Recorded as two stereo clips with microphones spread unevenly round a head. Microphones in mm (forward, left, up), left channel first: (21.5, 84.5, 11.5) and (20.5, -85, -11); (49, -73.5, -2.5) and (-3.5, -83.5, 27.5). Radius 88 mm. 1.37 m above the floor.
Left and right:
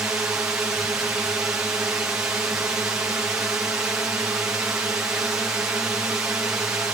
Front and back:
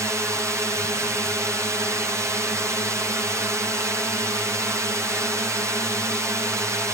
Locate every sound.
0.0 s a drone: 150° right